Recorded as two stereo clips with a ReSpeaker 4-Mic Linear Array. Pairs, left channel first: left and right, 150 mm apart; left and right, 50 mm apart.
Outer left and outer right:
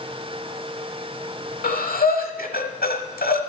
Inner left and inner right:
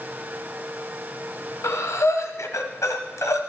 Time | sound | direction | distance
1.6 | breathing | 80° left | 1.1 m